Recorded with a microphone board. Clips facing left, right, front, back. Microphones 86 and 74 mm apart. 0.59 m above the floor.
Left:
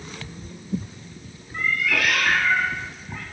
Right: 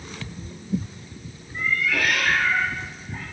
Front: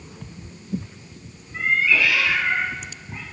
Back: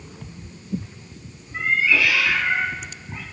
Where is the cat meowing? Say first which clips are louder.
Even, even; 95° left, 2.5 m.